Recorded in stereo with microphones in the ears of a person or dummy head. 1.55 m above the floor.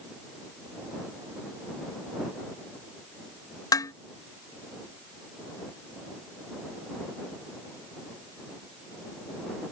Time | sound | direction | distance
3.7 | dishes clattering | 20° left (ahead or behind) | ?